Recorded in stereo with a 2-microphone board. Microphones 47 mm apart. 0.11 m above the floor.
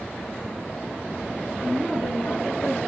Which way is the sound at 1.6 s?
25° left (ahead or behind).